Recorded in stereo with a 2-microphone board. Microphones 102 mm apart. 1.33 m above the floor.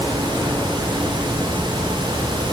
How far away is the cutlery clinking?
I don't hear cutlery clinking.